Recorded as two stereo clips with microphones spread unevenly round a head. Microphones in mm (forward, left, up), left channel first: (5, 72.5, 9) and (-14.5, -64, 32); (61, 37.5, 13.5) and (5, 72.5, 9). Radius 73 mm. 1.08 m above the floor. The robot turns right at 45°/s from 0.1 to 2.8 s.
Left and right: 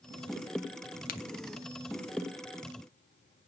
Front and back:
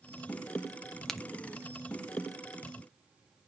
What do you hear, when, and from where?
1.1 s a crack: 55° left, 0.9 m; by 1.3 s 65° left, 0.9 m